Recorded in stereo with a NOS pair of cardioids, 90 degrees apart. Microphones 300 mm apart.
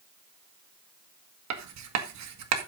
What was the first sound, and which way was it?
Writing, 65° right.